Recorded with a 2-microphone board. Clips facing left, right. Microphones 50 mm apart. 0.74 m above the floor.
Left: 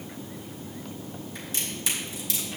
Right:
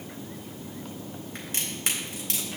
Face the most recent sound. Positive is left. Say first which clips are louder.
# even
turn(degrees=-50)  # may be behind; listen again after turning